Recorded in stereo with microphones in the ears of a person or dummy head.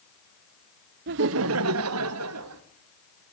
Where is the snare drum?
No snare drum in this recording.